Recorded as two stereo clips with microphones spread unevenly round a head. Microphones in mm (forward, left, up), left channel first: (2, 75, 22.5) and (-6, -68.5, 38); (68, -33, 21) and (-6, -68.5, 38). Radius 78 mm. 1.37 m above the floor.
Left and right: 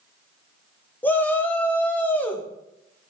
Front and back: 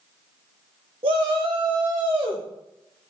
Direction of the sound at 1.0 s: 165° left.